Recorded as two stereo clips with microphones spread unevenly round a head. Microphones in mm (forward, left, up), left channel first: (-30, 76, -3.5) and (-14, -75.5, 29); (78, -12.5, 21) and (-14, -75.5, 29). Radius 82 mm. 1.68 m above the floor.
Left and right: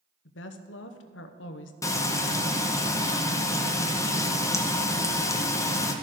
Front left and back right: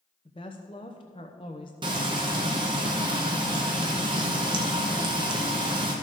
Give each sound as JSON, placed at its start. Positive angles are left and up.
{"t": 0.2, "sound": "a woman speaking", "azimuth_deg": 100, "distance_m": 0.9}
{"t": 1.8, "sound": "frying", "azimuth_deg": 170, "distance_m": 0.9}